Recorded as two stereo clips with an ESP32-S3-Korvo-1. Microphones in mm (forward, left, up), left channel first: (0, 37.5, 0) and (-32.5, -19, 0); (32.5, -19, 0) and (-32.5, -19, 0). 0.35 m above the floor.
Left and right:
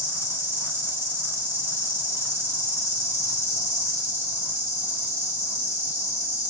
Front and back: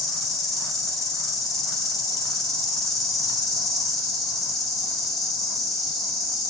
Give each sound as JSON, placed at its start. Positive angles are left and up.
{"t": 0.0, "sound": "an insect", "azimuth_deg": -85, "distance_m": 2.0}